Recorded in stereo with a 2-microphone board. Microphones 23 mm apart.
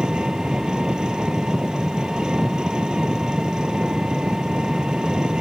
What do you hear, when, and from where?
0.0 s an engine running: 40° right (ahead or behind)